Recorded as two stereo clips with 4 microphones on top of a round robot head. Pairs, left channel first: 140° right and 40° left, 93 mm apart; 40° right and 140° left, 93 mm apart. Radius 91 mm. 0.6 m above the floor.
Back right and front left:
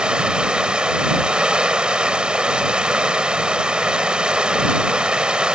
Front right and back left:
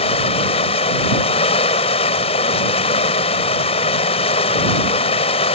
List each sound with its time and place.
0.0 s running water: 40° right